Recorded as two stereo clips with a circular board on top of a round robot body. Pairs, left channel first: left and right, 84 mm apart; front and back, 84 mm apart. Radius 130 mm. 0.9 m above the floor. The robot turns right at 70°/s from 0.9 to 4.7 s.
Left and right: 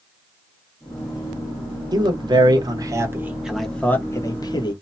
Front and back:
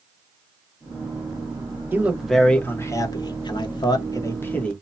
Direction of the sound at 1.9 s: 120° right.